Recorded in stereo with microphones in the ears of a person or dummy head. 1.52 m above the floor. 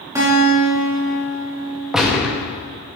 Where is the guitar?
15° right (ahead or behind), 4 m.